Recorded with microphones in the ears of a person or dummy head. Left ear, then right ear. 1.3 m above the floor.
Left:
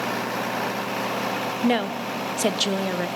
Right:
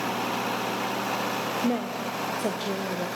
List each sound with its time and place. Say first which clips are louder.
1.6 s a woman speaking: left 5 dB; 55° left (ahead or behind), 1.0 m